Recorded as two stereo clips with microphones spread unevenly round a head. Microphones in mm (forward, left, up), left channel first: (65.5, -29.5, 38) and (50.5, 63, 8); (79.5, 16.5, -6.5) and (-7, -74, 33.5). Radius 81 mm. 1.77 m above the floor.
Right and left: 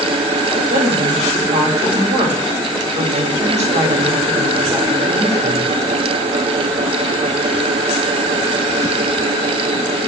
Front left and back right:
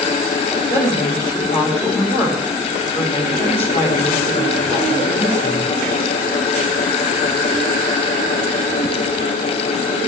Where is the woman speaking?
105° left, 6 m.